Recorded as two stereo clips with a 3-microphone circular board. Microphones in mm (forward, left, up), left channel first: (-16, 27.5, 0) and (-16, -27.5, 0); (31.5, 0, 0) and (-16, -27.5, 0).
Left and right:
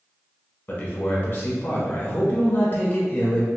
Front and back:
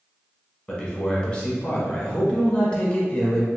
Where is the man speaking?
85° left, 1.0 m.